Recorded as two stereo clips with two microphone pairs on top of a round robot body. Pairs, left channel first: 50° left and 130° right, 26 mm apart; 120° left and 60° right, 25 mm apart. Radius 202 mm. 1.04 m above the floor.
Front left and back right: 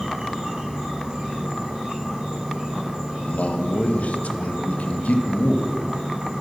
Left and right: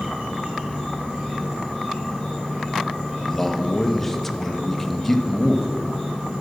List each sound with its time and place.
0.0 s an insect: 95° right, 3.5 m
3.2 s a man speaking: 45° left, 1.0 m